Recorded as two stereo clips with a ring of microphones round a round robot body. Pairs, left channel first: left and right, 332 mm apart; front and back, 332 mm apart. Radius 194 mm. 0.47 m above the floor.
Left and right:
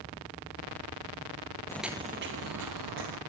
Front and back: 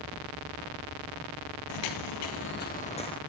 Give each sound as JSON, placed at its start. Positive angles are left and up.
{"t": 1.7, "sound": "footsteps", "azimuth_deg": 10, "distance_m": 0.8}